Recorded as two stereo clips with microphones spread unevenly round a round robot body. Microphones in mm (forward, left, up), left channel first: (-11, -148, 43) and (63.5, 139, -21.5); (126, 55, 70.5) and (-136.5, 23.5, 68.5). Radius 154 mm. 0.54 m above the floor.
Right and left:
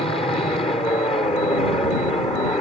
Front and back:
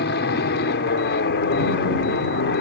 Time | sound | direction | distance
0.0 | an aircraft | 25° right | ?